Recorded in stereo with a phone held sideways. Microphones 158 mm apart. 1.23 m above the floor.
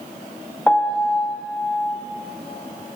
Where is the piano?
10° left (ahead or behind), 0.6 m.